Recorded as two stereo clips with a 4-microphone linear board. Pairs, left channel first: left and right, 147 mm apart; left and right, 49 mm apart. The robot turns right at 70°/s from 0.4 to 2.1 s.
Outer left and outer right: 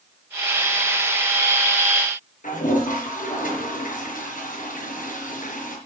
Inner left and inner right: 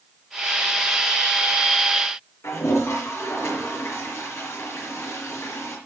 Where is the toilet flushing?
65° left (ahead or behind), 5.5 m.